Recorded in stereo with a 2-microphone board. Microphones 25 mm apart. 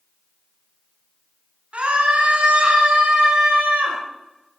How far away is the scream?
About 4 m.